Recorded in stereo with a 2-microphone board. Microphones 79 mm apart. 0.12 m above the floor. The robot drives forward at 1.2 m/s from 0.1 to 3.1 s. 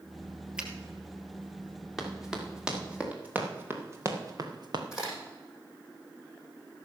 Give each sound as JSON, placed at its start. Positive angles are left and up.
{"t": 0.6, "sound": "a finger snap", "side_deg": -10, "distance_m": 2.0}
{"t": 2.0, "sound": "running footsteps", "side_deg": -5, "distance_m": 3.5}
{"t": 4.9, "sound": "a crack", "side_deg": -5, "distance_m": 6.5}